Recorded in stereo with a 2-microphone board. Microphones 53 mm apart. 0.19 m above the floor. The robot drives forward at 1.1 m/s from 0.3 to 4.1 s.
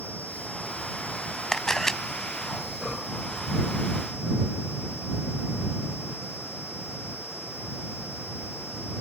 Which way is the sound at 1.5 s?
10° left (ahead or behind).